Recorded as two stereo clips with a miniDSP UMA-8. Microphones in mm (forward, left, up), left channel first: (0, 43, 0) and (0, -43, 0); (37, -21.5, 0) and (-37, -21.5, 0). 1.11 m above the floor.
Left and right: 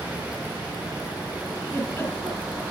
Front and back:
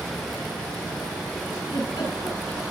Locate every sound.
1.6 s a giggle: 25° left, 8.5 m